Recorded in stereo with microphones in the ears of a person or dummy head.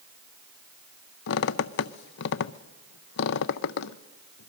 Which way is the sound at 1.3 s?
55° left (ahead or behind).